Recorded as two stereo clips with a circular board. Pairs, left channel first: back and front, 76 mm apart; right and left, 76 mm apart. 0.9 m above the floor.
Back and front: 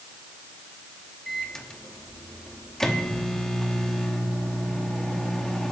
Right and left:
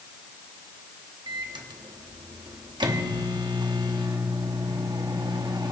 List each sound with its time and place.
1.3 s a microwave: 100° left, 1.1 m